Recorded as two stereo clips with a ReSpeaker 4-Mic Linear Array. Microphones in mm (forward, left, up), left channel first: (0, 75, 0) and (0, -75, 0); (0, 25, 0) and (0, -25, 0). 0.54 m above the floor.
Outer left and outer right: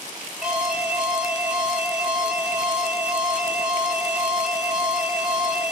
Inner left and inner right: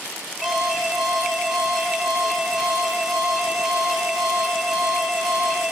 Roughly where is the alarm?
Centre.